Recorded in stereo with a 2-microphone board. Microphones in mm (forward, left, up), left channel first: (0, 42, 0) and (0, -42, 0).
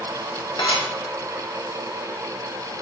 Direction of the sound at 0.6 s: 75° left (ahead or behind).